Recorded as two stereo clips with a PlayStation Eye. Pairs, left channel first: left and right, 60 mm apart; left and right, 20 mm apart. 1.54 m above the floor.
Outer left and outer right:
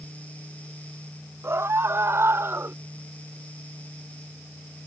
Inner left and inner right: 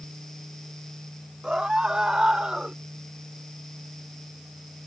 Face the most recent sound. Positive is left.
turn(degrees=-45)  # may be behind; listen again after turning